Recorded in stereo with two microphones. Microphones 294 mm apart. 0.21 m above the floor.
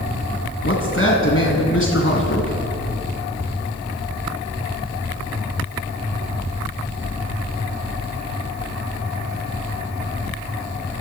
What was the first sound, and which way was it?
A man speaking, 45° left (ahead or behind).